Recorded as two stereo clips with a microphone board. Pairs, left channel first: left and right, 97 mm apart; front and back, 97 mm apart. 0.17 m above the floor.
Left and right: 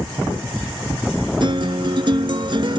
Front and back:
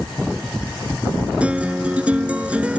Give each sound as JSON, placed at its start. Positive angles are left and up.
{"t": 1.4, "sound": "a guitar", "azimuth_deg": -105}